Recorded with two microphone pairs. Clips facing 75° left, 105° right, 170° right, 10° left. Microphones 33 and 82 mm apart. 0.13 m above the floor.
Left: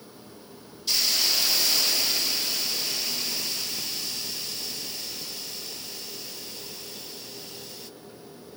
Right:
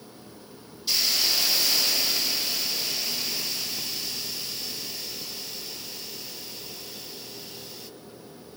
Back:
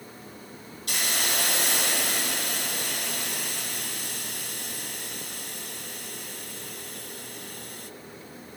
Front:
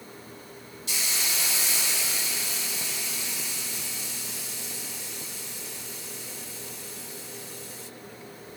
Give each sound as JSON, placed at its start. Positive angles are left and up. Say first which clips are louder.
{"t": 0.9, "sound": "a hiss", "louder": "even, back 4 dB", "azimuth_deg": 170, "distance_m": 0.9}